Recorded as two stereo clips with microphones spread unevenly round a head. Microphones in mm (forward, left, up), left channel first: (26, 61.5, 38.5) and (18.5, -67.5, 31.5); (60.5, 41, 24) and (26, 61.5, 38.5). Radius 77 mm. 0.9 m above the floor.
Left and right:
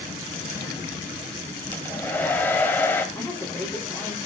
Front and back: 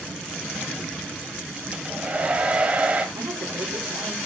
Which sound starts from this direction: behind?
A woman speaking, at 3.1 s.